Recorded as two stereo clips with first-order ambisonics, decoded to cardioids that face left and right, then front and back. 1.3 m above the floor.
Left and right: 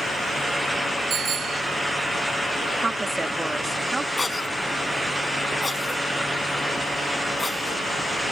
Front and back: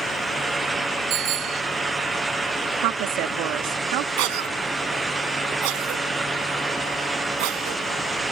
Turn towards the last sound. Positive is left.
turn(degrees=170)